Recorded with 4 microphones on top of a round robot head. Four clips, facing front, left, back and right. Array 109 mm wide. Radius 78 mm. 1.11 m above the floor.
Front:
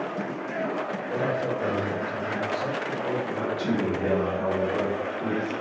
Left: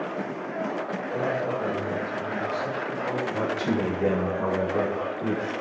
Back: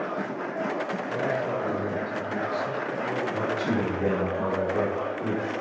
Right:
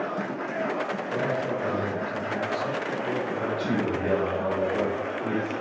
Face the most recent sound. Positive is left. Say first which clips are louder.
# left 1 dB, even
turn(degrees=90)